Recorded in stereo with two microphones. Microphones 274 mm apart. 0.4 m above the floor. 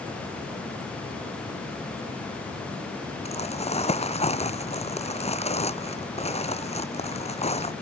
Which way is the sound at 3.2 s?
20° left (ahead or behind).